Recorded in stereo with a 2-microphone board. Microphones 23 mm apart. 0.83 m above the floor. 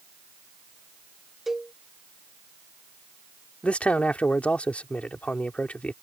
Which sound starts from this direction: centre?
A cowbell, at 1.5 s.